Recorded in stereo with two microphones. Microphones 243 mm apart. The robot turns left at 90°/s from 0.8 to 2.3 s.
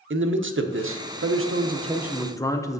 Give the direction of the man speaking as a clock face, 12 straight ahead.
2 o'clock.